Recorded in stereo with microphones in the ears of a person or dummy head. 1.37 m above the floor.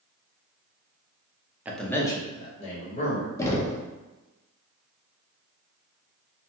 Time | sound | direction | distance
1.6 | a man speaking | 10° right (ahead or behind) | 0.5 m
3.4 | knocking | 15° left (ahead or behind) | 0.5 m